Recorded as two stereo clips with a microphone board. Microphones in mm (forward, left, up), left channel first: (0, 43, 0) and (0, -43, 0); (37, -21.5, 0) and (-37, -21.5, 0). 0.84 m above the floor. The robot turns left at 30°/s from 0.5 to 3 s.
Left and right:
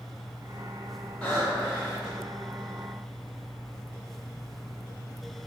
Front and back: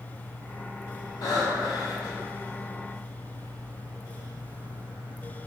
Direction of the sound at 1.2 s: 10° left.